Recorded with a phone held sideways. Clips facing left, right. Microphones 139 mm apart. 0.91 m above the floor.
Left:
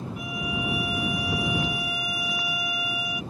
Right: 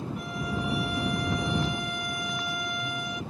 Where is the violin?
5° left (ahead or behind).